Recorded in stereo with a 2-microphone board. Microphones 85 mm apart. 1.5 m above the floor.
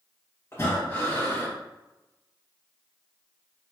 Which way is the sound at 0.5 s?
30° left (ahead or behind).